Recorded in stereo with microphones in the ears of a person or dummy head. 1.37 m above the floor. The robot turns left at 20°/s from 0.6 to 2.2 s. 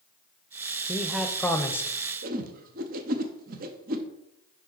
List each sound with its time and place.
0.9 s a man speaking: centre (ahead or behind), 0.5 m; by 1.9 s 15° left (ahead or behind), 0.5 m
2.2 s a whoosh: 45° right (ahead or behind), 0.7 m